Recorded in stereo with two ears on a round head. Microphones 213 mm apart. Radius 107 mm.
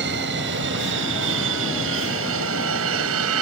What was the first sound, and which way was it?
An aircraft, 50° right (ahead or behind).